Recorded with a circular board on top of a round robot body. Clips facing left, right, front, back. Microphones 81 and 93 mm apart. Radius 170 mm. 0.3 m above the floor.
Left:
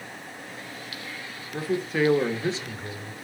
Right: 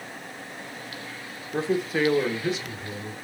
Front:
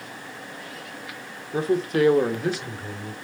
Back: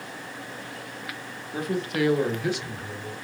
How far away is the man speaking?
About 1.2 m.